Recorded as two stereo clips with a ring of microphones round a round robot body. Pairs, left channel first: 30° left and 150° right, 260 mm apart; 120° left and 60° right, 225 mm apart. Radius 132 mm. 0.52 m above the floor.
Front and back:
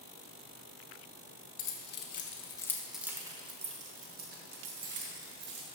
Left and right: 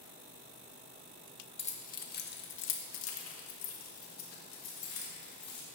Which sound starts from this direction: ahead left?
Keys jangling, at 1.6 s.